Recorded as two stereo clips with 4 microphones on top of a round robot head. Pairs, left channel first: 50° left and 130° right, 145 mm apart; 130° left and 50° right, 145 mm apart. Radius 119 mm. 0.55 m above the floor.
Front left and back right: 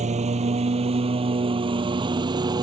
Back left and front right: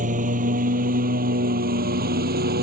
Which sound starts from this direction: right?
A lawn mower, at 0.0 s.